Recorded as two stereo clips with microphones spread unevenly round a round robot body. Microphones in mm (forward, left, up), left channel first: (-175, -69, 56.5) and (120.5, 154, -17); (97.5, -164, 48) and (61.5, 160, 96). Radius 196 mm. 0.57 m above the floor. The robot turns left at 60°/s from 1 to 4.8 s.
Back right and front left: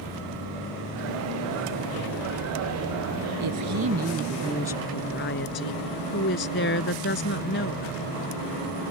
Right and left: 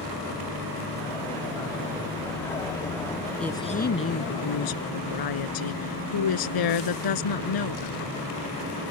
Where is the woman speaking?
5° left; by 8.1 s 80° right.